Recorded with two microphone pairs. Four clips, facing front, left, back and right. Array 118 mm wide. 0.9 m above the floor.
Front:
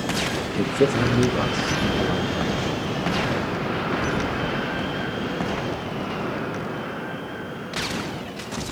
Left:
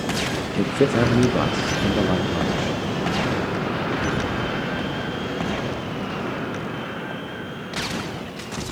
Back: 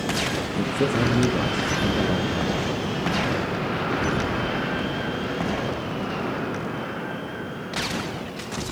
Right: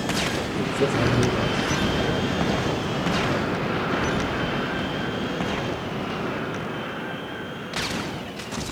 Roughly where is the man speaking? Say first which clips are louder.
Left 5 dB, front 3 dB; ahead left.